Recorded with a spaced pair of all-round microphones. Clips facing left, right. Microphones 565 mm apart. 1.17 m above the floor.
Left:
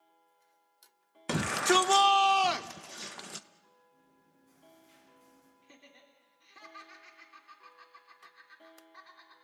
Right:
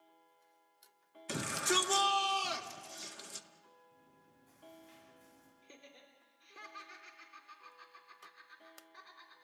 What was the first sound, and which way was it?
A shout, 80° left.